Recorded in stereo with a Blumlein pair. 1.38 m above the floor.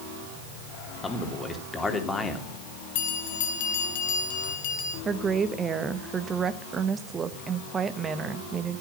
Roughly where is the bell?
Ahead left.